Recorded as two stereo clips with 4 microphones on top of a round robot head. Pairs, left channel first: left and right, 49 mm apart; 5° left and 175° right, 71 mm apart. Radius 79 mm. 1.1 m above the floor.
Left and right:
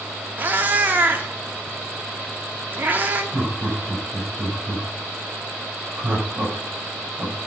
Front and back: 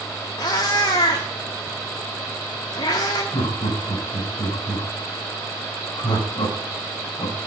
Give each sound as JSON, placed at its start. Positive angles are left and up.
{"t": 0.4, "sound": "a cat meowing", "azimuth_deg": -40, "distance_m": 1.1}
{"t": 3.3, "sound": "laughter", "azimuth_deg": -35, "distance_m": 5.5}